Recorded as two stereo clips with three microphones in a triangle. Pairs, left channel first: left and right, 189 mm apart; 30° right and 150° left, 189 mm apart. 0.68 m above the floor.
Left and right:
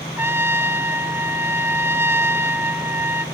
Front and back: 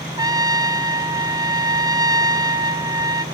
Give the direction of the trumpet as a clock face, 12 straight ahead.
5 o'clock.